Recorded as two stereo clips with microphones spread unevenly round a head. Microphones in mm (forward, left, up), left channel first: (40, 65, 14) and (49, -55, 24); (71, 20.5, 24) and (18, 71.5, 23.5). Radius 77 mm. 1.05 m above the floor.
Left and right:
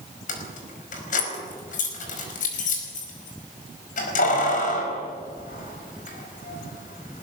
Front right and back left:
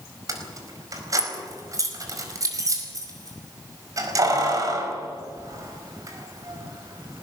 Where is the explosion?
I don't hear an explosion.